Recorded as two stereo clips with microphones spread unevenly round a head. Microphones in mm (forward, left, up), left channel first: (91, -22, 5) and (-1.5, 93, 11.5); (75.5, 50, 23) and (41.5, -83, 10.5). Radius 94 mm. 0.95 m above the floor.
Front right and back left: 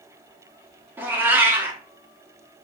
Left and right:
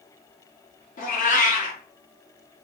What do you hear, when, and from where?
1.0 s a cat meowing: 55° left, 0.8 m